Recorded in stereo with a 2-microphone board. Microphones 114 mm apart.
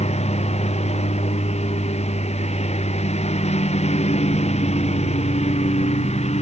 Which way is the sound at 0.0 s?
75° left (ahead or behind).